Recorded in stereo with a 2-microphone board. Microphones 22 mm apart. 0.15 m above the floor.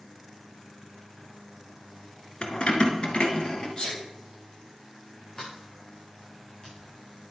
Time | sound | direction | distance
2.4 | keys jangling | 45° left (ahead or behind) | 1.3 m
3.8 | a sneeze | 40° left (ahead or behind) | 4.5 m
5.3 | a sliding door | 40° left (ahead or behind) | 5.5 m